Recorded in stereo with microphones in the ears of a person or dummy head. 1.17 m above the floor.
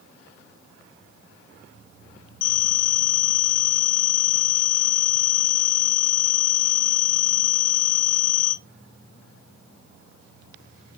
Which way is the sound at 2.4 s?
50° left (ahead or behind).